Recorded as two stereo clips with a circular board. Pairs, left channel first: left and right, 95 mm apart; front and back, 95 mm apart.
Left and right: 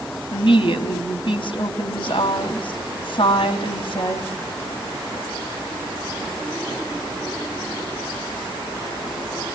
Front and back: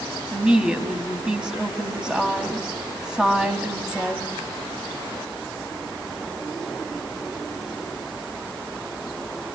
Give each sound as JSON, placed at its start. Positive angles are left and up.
{"t": 0.3, "sound": "a woman speaking", "azimuth_deg": 100, "distance_m": 2.5}